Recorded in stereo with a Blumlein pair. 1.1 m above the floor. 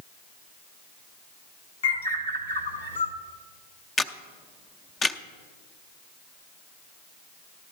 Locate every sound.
1.8 s a bird: 65° left, 1.5 m
4.0 s a camera shutter: 15° left, 0.6 m